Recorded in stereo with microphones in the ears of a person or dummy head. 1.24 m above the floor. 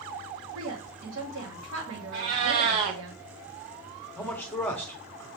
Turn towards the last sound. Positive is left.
turn(degrees=5)  # may be behind; listen again after turning